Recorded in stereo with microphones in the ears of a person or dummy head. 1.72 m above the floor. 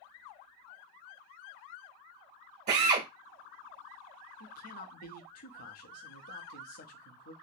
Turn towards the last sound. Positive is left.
turn(degrees=50)  # may be behind; listen again after turning